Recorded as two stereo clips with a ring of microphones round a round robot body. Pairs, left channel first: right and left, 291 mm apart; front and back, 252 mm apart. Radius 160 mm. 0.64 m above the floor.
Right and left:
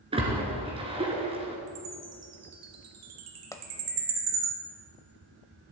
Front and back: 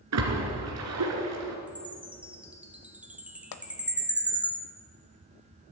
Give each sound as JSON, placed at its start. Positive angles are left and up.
{"t": 0.1, "sound": "a splash", "azimuth_deg": 160, "distance_m": 2.5}
{"t": 1.7, "sound": "a chime", "azimuth_deg": 95, "distance_m": 1.9}
{"t": 3.5, "sound": "a pop", "azimuth_deg": -10, "distance_m": 0.8}